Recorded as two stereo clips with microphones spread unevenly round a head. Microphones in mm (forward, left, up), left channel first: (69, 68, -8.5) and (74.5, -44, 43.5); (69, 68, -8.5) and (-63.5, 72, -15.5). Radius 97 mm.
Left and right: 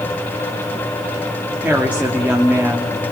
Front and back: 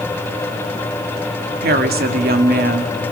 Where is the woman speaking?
170° right, 2.5 m.